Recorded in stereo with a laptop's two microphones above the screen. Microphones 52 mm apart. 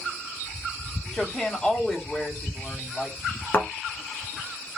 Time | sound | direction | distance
1.1 | a woman speaking | 25° left (ahead or behind) | 2.5 m
3.5 | a thud | 40° left (ahead or behind) | 1.4 m